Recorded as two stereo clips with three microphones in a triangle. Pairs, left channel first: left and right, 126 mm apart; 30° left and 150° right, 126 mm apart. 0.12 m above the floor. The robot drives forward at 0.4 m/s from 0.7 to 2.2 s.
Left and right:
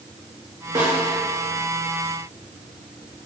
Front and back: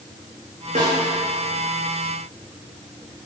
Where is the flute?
No flute in this recording.